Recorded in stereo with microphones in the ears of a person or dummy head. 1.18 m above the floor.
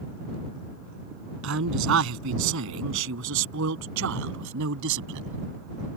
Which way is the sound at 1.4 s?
75° right (ahead or behind).